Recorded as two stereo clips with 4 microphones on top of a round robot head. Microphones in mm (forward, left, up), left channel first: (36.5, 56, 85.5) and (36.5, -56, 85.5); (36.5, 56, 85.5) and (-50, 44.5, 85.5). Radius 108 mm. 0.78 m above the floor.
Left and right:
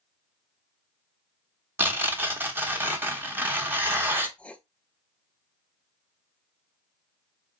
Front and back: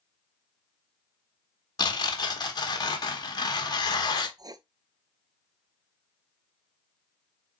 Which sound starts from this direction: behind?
Writing, at 4.4 s.